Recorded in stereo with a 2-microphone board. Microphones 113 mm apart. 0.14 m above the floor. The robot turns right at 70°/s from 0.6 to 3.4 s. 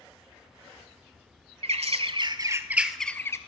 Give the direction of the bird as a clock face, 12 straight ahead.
3 o'clock.